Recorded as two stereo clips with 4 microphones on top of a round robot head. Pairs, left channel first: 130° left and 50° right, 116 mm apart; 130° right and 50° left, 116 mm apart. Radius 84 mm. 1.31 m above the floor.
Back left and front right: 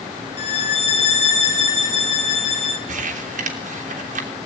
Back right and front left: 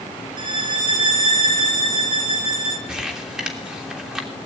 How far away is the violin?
About 2.5 m.